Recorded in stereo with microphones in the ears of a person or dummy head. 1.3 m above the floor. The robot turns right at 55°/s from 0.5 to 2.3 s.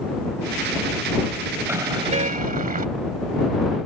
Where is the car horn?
175° right; by 2.9 s 140° right.